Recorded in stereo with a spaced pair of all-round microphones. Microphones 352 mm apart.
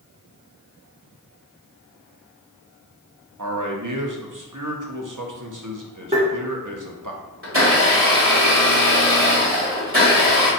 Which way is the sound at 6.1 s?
20° right (ahead or behind).